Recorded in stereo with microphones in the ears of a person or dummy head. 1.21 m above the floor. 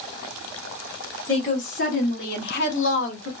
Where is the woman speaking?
35° left (ahead or behind), 1.9 m; by 3.3 s 80° left, 1.3 m.